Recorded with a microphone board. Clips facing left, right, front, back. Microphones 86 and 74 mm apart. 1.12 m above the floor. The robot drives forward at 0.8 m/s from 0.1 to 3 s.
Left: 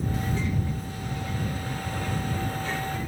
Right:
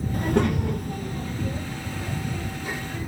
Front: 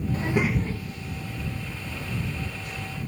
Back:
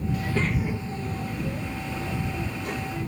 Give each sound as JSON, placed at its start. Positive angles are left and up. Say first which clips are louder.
{"t": 0.1, "sound": "a child speaking", "louder": "right 6 dB, front 3 dB", "azimuth_deg": -55}